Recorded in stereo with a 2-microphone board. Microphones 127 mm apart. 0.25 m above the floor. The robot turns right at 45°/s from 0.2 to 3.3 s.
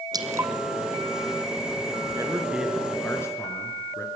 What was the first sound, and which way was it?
Dripping, 30° right (ahead or behind).